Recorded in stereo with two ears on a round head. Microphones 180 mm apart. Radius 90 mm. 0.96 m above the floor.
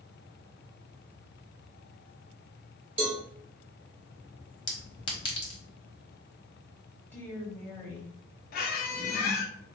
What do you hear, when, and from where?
3.0 s a cowbell: 30° right (ahead or behind), 1.1 m
4.7 s a clink: 25° left (ahead or behind), 1.1 m
7.1 s a woman speaking: 10° left (ahead or behind), 1.4 m
8.5 s a squeak: 50° left (ahead or behind), 0.7 m